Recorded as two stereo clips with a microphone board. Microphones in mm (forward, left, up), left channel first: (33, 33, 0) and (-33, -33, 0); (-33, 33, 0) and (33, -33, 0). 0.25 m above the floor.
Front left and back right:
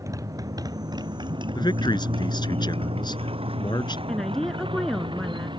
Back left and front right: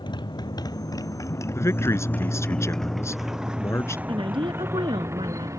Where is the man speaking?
75° left.